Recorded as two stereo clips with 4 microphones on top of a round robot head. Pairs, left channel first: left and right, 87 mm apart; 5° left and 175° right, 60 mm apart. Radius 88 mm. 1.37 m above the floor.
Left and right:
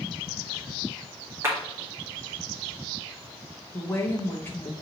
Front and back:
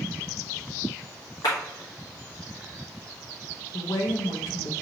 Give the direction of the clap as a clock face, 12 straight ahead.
1 o'clock.